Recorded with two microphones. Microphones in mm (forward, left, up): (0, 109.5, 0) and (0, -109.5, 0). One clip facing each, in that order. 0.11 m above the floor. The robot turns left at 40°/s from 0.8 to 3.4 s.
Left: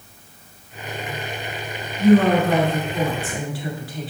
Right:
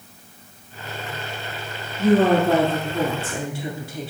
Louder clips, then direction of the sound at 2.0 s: Left 2 dB; 25° right (ahead or behind).